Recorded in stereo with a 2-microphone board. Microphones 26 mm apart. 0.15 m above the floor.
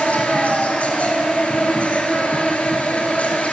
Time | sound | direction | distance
0.0 | an insect | 60° left (ahead or behind) | 1.7 m